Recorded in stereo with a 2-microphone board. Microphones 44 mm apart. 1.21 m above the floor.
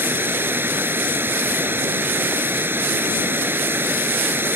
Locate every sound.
0.0 s running water: 55° right (ahead or behind)